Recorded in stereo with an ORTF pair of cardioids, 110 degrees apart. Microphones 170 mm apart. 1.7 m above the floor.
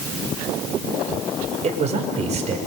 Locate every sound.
1.6 s a man speaking: 40° right, 5.5 m